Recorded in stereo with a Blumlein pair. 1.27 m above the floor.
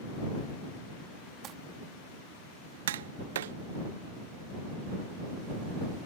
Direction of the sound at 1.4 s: 30° right.